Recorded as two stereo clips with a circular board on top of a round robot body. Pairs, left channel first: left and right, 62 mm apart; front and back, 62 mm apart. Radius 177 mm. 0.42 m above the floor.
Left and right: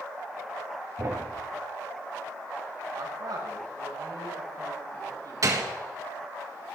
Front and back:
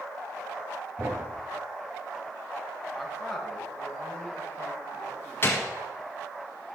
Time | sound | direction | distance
1.0 | a thud | 120° right | 2 m
2.9 | a man speaking | 95° right | 3.5 m
5.4 | a gunshot | 55° right | 1.6 m